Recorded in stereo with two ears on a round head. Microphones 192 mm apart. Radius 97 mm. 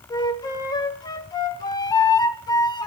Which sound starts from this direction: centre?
A flute, at 0.1 s.